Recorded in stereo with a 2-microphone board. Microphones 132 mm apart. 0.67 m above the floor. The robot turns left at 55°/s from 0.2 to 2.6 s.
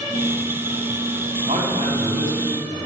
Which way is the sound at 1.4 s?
50° right.